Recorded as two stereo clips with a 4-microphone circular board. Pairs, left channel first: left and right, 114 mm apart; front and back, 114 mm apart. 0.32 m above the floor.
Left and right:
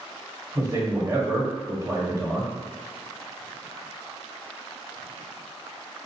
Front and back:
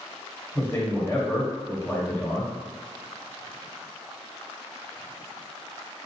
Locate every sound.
0.6 s a man speaking: 50° right, 1.3 m